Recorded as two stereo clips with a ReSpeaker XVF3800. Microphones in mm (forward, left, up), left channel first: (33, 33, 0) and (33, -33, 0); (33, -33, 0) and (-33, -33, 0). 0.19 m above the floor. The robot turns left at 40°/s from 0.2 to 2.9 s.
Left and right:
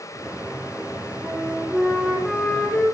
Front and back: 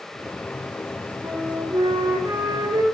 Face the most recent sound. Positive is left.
turn(degrees=145)